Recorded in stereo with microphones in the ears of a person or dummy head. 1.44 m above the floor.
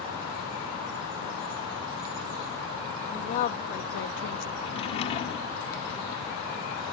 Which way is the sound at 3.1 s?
35° left (ahead or behind).